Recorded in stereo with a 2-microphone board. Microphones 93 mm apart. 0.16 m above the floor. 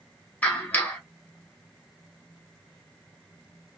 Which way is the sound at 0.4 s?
20° left (ahead or behind).